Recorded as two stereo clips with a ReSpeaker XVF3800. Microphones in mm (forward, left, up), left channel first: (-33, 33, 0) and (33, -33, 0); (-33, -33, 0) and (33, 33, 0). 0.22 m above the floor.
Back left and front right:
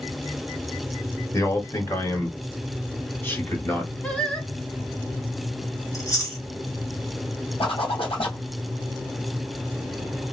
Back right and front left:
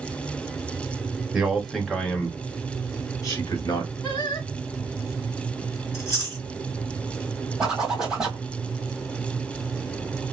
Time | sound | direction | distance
1.3 | a man speaking | 125° left | 1.2 m
4.0 | singing | 150° right | 1.4 m
5.9 | chewing | 175° left | 2.5 m
7.6 | a zipper | 130° left | 1.4 m